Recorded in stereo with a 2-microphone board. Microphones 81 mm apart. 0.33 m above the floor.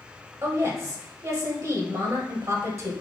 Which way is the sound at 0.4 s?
40° right (ahead or behind).